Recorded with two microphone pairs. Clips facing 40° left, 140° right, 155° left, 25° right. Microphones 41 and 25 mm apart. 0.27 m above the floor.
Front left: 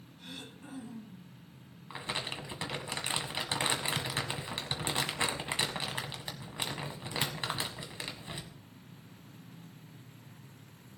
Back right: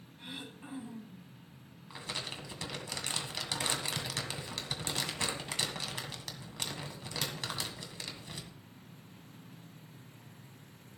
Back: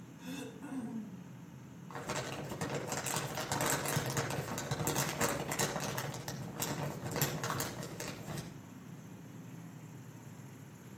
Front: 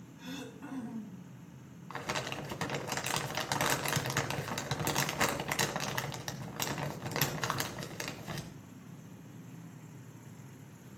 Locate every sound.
0.2 s throat clearing: 80° right, 2.5 m
1.9 s crumpling: 15° right, 1.6 m